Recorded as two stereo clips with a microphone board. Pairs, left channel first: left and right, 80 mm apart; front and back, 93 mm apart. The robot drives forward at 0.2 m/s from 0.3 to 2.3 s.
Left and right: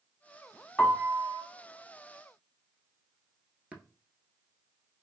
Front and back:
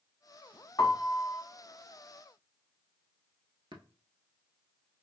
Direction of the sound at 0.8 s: 25° left.